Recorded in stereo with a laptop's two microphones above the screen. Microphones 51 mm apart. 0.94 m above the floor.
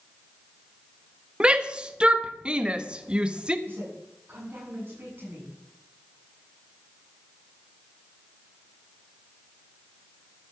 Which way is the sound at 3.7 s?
40° right (ahead or behind).